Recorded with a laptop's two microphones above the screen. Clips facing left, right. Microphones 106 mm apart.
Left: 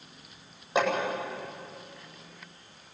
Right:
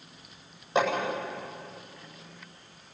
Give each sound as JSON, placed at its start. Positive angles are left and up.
{"t": 0.8, "sound": "hammering", "side_deg": 5, "distance_m": 9.0}